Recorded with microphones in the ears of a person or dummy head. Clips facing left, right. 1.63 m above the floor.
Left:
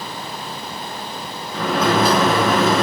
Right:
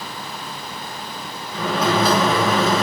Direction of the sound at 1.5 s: 50° left (ahead or behind).